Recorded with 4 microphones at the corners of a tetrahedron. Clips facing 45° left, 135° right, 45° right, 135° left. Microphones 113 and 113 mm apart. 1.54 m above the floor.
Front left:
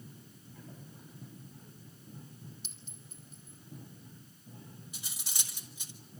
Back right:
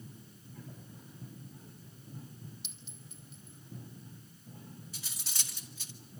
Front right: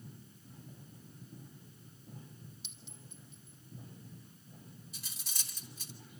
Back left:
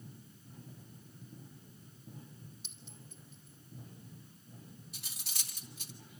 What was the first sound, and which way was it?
A clink, 90° left.